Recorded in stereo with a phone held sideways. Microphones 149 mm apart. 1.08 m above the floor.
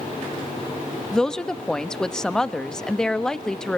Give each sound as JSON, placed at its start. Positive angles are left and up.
{"t": 1.1, "sound": "a woman speaking", "side_deg": 5, "distance_m": 1.0}